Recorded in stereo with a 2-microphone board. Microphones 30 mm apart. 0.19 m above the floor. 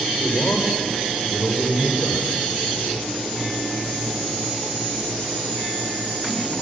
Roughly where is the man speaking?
Left.